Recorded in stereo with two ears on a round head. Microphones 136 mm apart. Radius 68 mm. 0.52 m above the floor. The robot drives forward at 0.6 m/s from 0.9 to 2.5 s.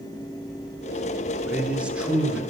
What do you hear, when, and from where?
1.4 s a man speaking: 10° right (ahead or behind), 1.0 m; by 2.4 s 5° right (ahead or behind), 1.5 m